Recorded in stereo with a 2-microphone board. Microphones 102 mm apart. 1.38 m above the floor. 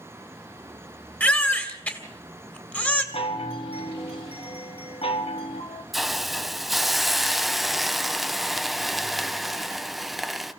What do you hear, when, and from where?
1.2 s a baby crying: 15° left (ahead or behind), 2 m
3.1 s a chime: 65° left (ahead or behind), 1.6 m
5.9 s a hiss: centre (ahead or behind), 0.7 m